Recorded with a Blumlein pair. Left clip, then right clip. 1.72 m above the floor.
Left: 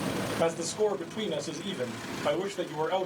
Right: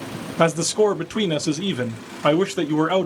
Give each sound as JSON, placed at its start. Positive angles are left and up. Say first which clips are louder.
{"t": 0.4, "sound": "a man speaking", "louder": "right 11 dB", "azimuth_deg": -45, "distance_m": 0.5}